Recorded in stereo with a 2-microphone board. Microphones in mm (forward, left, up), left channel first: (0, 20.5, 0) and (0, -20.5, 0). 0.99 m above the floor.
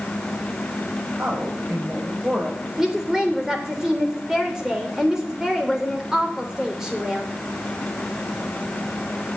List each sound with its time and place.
1.2 s a man speaking: 45° right (ahead or behind), 5 m; by 2.7 s 35° right (ahead or behind), 4.5 m
2.8 s a woman speaking: 15° right (ahead or behind), 3 m